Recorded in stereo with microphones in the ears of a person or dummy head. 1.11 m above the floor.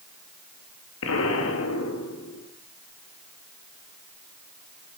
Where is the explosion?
75° left (ahead or behind), 1.9 m.